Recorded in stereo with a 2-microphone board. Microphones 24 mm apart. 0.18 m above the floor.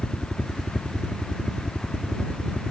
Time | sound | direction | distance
0.0 | a helicopter | 30° left (ahead or behind) | ?